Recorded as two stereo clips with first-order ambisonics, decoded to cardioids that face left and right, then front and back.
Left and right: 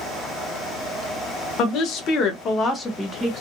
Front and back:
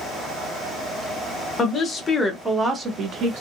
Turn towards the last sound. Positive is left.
turn(degrees=-165)